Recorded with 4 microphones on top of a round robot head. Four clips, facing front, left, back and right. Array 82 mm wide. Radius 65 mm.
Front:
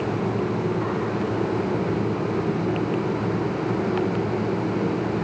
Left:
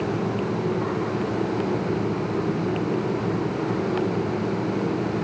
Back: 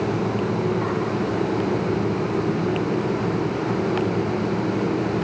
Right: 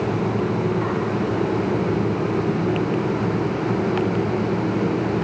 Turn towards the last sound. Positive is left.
No sound to turn to.